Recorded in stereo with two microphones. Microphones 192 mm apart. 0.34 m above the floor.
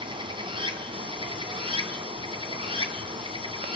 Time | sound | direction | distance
0.0 | running water | 25° right (ahead or behind) | 2.5 m